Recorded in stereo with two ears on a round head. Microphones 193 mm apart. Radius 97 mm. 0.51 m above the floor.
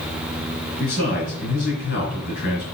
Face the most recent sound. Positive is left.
turn(degrees=55)  # may be behind; listen again after turning